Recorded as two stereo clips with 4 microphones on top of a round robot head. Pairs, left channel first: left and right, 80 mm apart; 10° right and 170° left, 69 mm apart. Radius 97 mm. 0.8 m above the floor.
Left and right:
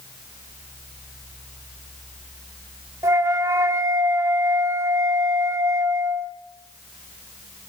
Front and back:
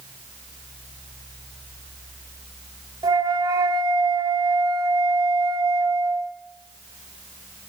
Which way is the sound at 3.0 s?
140° right.